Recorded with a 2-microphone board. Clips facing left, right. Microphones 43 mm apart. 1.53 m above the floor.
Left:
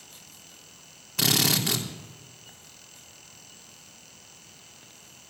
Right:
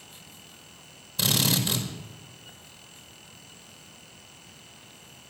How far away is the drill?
About 3 m.